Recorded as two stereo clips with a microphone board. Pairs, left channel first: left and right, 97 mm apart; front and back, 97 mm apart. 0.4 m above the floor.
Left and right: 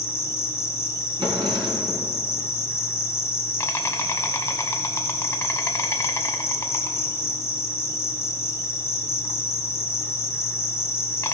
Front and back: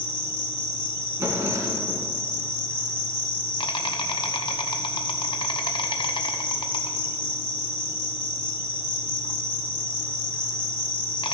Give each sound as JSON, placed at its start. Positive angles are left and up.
{"t": 0.0, "sound": "an insect", "azimuth_deg": 30, "distance_m": 1.0}
{"t": 1.2, "sound": "a drawer", "azimuth_deg": -120, "distance_m": 2.0}